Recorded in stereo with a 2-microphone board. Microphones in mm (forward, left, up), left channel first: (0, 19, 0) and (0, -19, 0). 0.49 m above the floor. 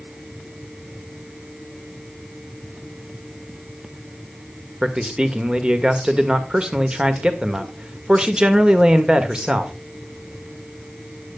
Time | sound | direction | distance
4.8 | a man speaking | 25° right (ahead or behind) | 1.6 m